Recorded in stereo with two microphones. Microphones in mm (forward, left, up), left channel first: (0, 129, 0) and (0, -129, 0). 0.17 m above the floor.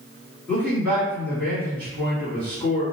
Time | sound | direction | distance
0.5 | a man speaking | 10° left (ahead or behind) | 1.6 m